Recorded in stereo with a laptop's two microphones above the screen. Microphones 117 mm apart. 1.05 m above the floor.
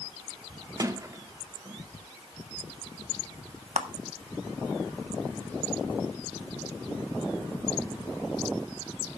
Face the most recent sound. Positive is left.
turn(degrees=-85)